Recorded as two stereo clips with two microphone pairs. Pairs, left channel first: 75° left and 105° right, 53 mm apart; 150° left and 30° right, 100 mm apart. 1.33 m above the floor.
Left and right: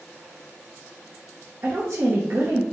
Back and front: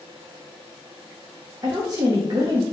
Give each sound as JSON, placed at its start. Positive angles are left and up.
{"t": 1.6, "sound": "a woman speaking", "azimuth_deg": -75, "distance_m": 0.6}